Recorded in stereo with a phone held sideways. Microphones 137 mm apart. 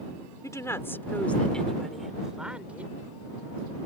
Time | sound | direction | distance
0.4 | a woman speaking | 25° left (ahead or behind) | ?